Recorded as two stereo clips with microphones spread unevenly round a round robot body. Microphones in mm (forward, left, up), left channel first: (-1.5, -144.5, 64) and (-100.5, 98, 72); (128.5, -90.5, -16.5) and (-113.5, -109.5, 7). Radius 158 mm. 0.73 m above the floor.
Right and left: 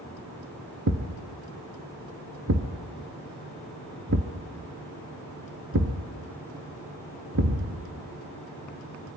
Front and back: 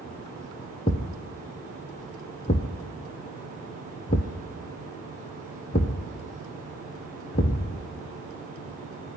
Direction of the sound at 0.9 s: 70° left.